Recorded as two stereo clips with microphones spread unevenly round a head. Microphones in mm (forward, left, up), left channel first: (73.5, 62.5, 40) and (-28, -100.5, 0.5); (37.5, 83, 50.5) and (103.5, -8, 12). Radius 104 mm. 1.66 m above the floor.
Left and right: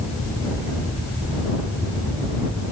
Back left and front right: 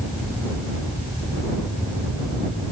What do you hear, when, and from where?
Only background noise.